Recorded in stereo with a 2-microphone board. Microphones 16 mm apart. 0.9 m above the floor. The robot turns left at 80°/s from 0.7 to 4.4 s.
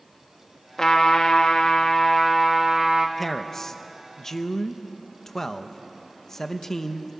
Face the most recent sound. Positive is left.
turn(degrees=30)  # may be behind; listen again after turning